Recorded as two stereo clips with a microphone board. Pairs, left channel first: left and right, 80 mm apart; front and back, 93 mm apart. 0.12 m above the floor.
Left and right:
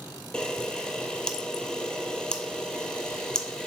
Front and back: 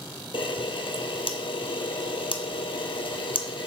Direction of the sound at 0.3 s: 10° left.